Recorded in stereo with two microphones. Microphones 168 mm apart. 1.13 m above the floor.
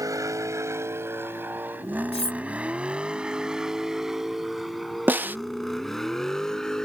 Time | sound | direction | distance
0.0 | a vehicle | 20° right (ahead or behind) | ?
2.1 | cutlery clinking | 40° left (ahead or behind) | ?
5.1 | a snare drum | 10° right (ahead or behind) | ?